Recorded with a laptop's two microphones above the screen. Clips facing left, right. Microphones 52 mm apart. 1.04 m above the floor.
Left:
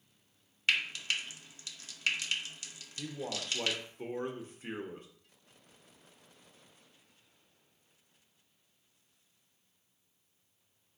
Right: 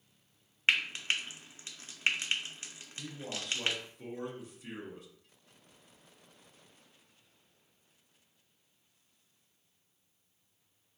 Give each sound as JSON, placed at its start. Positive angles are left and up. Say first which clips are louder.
{"t": 0.7, "sound": "frying", "louder": "right 2 dB", "side_deg": -30, "distance_m": 0.6}
{"t": 3.0, "sound": "a man speaking", "louder": "left 3 dB", "side_deg": 40, "distance_m": 0.7}